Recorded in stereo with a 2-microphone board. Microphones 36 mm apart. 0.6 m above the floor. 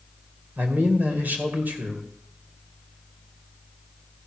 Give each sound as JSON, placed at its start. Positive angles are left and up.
{"t": 0.6, "sound": "a man speaking", "side_deg": -60, "distance_m": 2.5}